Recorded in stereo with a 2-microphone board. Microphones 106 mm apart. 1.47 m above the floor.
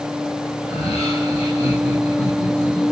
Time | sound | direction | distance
0.6 | laughter | 60° left (ahead or behind) | 8 m